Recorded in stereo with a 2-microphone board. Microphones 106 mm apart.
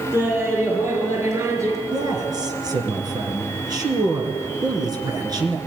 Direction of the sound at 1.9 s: 35° right (ahead or behind).